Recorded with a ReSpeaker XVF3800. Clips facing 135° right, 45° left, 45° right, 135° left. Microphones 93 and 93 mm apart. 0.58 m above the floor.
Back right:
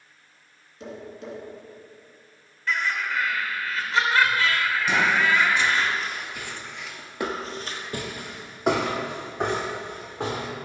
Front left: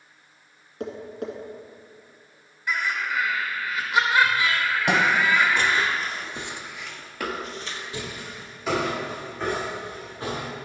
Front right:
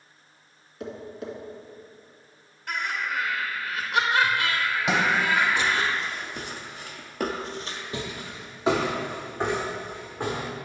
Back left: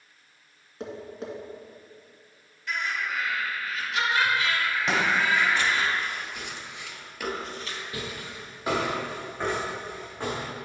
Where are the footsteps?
35° left, 1.6 m; by 10.5 s 120° right, 3 m.